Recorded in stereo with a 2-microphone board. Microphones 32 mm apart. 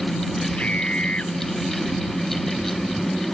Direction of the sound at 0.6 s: 40° left (ahead or behind).